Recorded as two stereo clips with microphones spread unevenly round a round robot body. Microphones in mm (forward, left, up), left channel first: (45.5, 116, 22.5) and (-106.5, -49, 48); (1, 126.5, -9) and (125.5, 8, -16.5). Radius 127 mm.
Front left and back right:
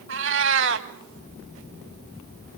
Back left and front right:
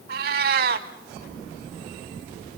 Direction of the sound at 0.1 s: 90° right.